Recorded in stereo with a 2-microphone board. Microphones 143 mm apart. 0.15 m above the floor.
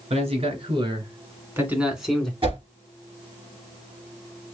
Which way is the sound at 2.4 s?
40° right (ahead or behind).